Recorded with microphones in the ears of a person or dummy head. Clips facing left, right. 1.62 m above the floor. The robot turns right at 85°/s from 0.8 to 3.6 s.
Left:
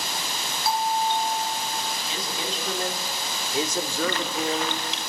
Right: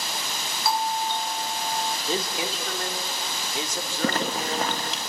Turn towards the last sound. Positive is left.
turn(degrees=-35)  # may be behind; listen again after turning